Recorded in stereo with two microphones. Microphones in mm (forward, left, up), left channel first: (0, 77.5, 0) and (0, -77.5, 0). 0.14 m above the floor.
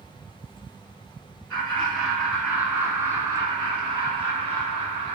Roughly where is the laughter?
Centre.